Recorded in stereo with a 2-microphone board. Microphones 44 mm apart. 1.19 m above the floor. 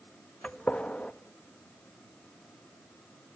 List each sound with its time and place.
0.4 s a gunshot: 30° left (ahead or behind), 1.2 m